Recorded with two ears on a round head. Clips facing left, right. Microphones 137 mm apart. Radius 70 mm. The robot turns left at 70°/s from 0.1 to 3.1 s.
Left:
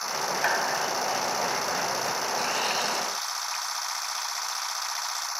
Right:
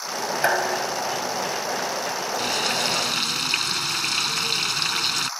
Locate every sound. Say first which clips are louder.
0.4 s dishes clattering: right 6 dB; 120° right; by 2.1 s 120° left
2.4 s frying: right 2 dB; 30° right; by 5.3 s 80° right